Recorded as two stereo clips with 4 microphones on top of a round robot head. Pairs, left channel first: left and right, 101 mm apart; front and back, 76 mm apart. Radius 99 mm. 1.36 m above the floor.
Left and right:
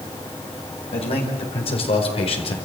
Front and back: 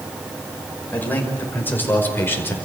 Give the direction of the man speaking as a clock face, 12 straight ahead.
10 o'clock.